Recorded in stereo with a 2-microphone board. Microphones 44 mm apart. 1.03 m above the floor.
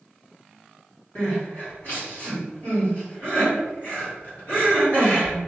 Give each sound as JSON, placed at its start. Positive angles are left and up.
{"t": 1.1, "sound": "crying", "side_deg": 55, "distance_m": 1.9}